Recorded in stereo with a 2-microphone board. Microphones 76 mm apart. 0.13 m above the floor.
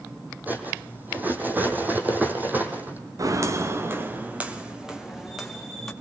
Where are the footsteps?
50° right (ahead or behind), 2.5 m; by 5.9 s centre (ahead or behind), 4 m.